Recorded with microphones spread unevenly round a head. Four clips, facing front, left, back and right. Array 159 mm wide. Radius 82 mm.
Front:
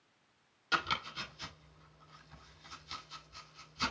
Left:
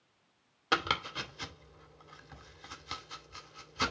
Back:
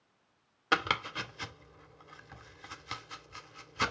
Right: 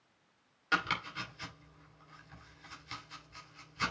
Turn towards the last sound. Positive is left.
turn(degrees=145)